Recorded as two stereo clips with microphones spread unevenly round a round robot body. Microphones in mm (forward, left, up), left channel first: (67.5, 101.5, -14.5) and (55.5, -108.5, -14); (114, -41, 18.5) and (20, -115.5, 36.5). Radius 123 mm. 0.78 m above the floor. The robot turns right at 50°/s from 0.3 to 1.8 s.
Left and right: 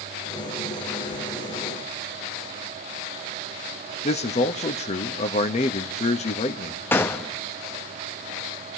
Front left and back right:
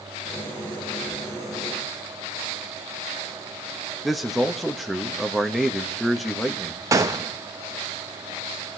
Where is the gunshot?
160° left, 0.6 m.